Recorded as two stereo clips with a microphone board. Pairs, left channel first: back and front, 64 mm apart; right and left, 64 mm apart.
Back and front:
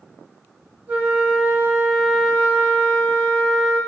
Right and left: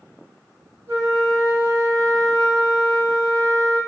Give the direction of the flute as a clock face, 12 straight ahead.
10 o'clock.